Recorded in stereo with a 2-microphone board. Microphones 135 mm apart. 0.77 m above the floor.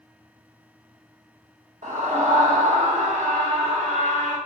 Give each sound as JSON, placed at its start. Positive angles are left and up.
{"t": 1.8, "sound": "a scream", "side_deg": -70, "distance_m": 2.5}